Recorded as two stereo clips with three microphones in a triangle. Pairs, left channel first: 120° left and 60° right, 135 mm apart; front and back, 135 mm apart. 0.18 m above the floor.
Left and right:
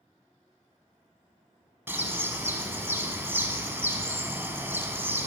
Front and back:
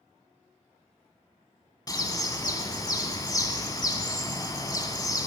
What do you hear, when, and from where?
1.9 s a bird: 5° right, 1.1 m